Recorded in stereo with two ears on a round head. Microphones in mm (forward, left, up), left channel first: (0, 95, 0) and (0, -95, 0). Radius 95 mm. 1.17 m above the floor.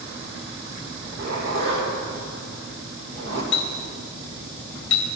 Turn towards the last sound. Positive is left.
turn(degrees=60)  # may be behind; listen again after turning